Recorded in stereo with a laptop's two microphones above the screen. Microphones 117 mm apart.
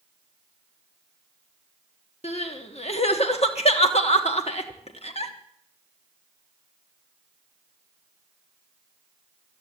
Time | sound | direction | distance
2.2 | crying | 65° left (ahead or behind) | 1.3 m